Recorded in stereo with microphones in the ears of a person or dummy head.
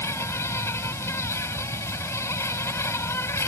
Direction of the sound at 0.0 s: 15° left (ahead or behind).